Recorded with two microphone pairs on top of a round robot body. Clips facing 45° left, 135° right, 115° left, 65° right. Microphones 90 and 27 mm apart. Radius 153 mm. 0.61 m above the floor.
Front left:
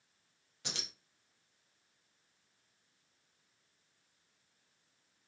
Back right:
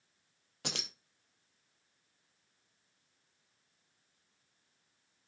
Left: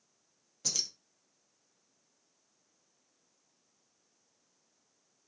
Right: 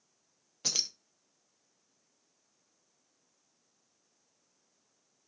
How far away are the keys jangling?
About 0.6 m.